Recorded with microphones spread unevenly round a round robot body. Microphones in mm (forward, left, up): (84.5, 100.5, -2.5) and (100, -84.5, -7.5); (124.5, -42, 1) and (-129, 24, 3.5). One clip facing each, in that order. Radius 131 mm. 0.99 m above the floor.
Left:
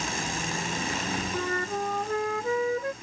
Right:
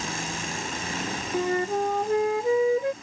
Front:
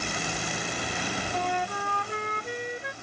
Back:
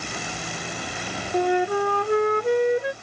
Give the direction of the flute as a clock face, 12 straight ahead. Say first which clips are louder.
Right 9 dB, back 15 dB; 5 o'clock.